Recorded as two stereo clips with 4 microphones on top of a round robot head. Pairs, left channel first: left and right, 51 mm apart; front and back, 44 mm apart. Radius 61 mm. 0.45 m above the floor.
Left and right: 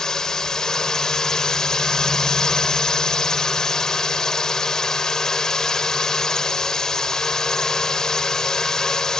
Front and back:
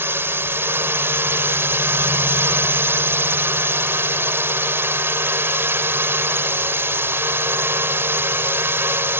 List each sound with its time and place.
0.0 s a drone: 170° left